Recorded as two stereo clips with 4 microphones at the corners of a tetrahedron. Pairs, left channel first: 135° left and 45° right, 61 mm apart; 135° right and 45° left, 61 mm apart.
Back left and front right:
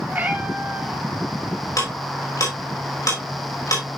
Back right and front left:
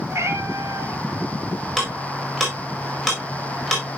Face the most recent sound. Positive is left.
turn(degrees=130)